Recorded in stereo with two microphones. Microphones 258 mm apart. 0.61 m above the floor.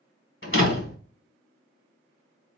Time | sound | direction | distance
0.4 | a door slam | 50° left (ahead or behind) | 1.2 m